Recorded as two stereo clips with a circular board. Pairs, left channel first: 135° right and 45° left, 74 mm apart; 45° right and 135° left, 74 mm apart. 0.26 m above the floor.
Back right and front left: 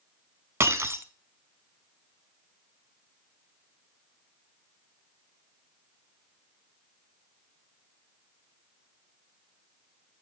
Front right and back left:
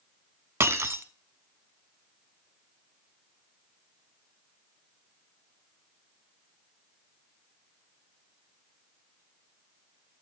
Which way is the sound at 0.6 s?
90° left.